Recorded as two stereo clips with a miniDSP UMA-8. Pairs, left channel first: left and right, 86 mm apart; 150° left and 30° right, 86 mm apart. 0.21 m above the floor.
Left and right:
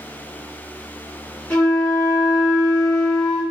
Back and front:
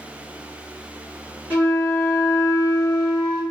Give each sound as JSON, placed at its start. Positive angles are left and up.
{"t": 1.5, "sound": "a flute", "azimuth_deg": 125, "distance_m": 1.6}